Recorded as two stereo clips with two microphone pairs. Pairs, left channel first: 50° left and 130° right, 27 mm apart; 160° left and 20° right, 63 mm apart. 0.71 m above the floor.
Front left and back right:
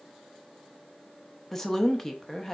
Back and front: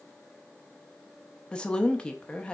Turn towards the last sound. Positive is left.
turn(degrees=105)